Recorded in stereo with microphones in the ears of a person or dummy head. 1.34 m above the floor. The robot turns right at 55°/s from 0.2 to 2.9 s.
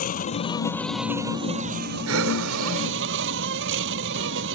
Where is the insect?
140° left; by 4.5 s 70° right.